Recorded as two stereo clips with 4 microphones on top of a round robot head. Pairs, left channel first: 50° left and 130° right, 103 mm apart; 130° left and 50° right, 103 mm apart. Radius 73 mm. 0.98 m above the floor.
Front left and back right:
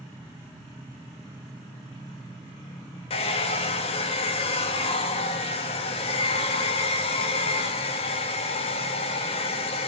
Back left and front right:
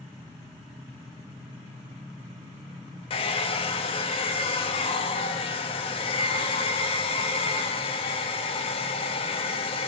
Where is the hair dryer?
90° left, 0.7 m.